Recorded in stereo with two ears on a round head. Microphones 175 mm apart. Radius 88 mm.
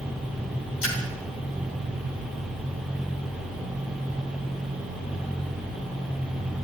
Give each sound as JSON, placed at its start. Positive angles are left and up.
{"t": 0.8, "sound": "a splash", "side_deg": 70, "distance_m": 3.5}